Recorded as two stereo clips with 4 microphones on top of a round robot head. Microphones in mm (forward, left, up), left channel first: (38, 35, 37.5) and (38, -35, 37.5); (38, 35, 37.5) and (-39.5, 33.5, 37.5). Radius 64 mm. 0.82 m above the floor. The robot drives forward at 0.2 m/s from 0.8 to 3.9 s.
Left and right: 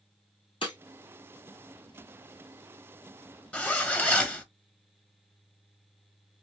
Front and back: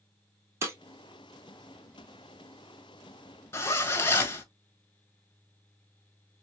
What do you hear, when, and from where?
0.6 s breaking glass: 135° left, 1.3 m
3.5 s a zipper: 30° left, 1.2 m; by 4.4 s 35° left, 1.1 m